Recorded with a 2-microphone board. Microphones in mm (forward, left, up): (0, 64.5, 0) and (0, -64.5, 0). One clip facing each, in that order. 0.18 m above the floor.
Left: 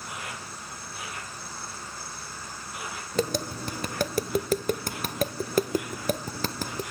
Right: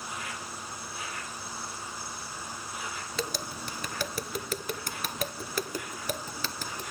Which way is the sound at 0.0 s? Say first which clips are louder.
Even; 80° left.